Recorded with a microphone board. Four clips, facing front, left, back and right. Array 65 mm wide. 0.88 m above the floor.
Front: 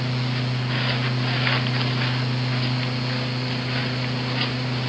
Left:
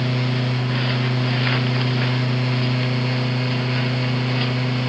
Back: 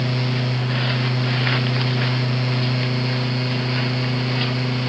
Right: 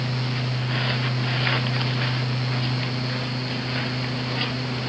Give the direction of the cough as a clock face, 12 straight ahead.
I don't hear a cough.